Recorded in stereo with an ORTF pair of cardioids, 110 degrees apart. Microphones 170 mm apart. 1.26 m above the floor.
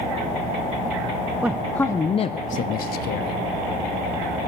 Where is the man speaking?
10° right, 0.5 m; by 3.4 s 75° left, 0.9 m.